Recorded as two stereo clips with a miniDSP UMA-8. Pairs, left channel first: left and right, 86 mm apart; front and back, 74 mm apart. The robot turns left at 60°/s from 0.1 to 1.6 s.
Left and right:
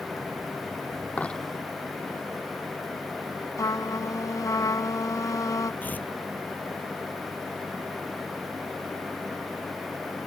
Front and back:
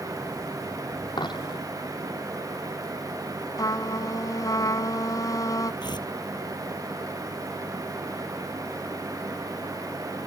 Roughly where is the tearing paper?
Ahead.